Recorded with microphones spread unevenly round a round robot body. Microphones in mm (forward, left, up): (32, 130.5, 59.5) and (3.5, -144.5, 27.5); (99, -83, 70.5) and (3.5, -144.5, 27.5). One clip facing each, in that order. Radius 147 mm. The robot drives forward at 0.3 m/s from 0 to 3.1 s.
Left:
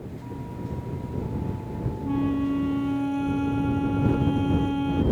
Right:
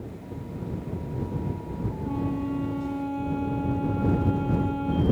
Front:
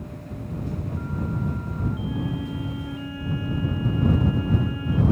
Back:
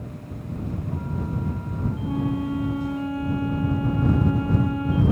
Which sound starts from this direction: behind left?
A flute, at 2.0 s.